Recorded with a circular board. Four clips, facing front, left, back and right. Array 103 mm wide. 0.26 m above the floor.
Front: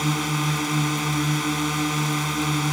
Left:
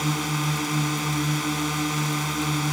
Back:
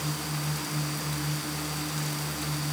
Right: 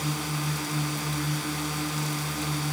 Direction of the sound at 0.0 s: 25° left.